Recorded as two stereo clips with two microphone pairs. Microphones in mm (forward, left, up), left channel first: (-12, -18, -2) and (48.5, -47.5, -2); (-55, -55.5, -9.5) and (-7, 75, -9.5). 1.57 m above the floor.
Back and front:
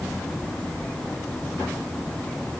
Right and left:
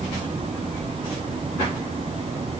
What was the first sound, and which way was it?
Only background noise.